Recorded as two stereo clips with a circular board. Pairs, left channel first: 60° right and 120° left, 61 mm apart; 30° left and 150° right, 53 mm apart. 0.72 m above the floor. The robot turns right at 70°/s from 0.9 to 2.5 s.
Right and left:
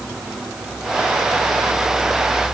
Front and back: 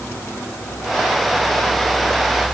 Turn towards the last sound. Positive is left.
No sound to turn to.